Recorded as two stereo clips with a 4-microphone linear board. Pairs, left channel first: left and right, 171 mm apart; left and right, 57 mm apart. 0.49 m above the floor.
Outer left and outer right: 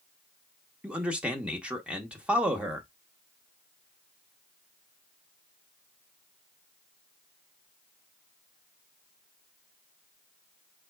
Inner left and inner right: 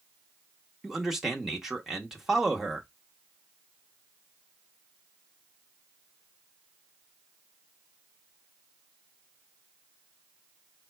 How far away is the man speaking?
About 1.0 m.